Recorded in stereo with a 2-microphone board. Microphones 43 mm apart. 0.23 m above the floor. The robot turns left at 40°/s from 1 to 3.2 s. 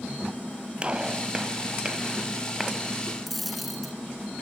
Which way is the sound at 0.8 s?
25° right (ahead or behind).